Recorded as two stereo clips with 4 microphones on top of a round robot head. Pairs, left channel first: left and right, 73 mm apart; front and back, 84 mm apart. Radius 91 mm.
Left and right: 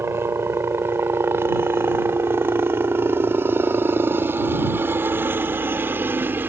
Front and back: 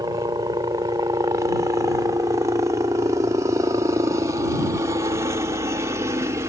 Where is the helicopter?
140° right.